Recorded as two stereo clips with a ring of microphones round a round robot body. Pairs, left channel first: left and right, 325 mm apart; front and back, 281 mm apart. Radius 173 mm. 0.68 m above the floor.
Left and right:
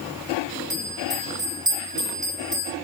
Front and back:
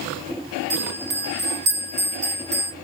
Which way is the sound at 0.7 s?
165° right.